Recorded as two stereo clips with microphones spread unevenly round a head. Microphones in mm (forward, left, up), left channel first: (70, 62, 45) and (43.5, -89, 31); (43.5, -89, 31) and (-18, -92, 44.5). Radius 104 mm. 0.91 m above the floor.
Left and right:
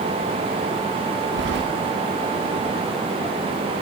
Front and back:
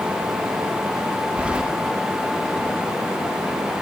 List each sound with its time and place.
1.4 s keys jangling: 105° right, 1.1 m